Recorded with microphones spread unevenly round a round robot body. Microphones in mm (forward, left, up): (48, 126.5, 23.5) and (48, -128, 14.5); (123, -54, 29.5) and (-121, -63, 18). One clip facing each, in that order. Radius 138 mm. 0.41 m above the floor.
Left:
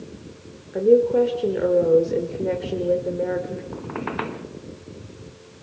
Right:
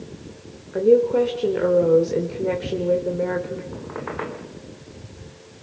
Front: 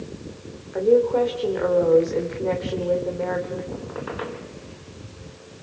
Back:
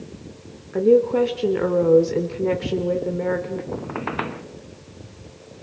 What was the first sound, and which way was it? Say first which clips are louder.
A woman speaking: even, back 2 dB; 170° right.